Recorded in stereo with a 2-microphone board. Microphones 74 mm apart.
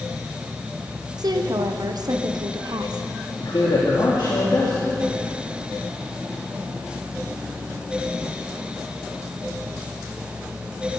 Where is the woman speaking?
65° right (ahead or behind), 0.9 m.